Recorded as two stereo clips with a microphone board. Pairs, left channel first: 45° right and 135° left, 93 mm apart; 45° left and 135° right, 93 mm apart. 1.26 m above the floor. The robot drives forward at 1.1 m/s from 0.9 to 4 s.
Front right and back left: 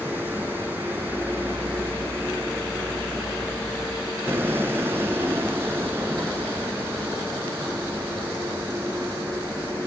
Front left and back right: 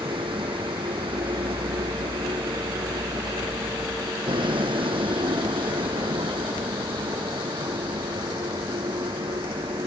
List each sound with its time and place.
0.0 s a vehicle: 155° right; by 9.9 s 160° right